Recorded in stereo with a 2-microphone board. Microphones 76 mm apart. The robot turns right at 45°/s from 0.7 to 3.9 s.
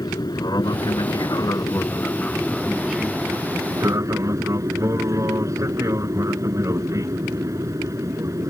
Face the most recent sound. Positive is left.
turn(degrees=-130)